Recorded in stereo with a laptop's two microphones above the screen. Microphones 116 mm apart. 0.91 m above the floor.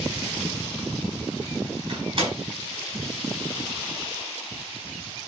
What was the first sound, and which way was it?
A door slam, 45° right (ahead or behind).